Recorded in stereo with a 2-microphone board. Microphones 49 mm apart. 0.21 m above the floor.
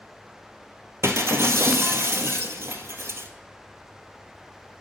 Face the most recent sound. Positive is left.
turn(degrees=-65)  # may be behind; listen again after turning